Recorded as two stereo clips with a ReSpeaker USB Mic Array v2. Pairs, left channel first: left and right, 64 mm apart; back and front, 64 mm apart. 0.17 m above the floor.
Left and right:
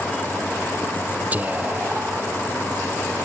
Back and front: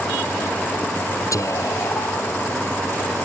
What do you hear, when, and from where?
1.3 s whispering: 150° right